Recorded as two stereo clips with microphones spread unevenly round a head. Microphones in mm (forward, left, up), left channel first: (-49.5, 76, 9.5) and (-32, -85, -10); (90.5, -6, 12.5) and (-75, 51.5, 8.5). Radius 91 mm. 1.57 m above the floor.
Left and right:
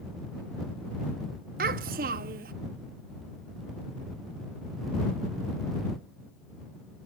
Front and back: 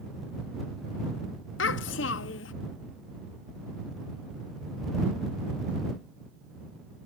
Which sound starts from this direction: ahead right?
A child speaking, at 1.6 s.